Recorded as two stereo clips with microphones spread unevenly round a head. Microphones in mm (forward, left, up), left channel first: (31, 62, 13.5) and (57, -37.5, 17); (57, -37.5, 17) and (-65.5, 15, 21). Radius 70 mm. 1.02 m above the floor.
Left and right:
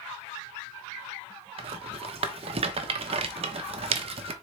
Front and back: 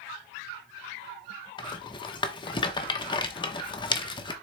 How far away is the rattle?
About 1.1 m.